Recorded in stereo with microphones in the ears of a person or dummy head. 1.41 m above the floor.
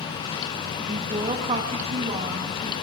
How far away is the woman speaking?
About 1.9 m.